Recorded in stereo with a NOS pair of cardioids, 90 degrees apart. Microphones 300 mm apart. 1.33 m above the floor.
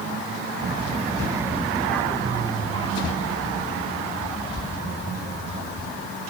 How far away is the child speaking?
About 1.2 m.